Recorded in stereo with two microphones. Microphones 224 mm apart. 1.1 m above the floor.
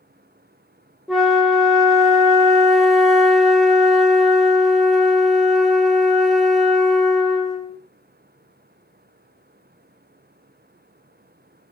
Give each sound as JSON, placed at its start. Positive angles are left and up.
{"t": 1.1, "sound": "a flute", "side_deg": 0, "distance_m": 0.6}